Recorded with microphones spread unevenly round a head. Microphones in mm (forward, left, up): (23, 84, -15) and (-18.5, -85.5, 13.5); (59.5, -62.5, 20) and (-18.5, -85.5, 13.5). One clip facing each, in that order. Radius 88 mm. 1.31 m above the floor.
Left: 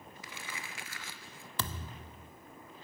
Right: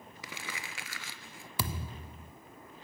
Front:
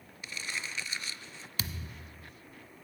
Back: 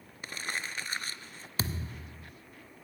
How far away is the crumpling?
About 3.5 m.